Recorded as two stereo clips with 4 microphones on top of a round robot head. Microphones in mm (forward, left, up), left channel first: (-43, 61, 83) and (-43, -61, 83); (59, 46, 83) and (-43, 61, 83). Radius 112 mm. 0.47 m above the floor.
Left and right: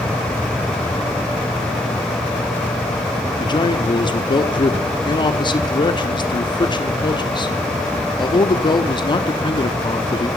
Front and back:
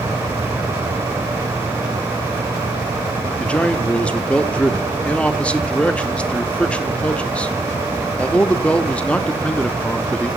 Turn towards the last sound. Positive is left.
turn(degrees=65)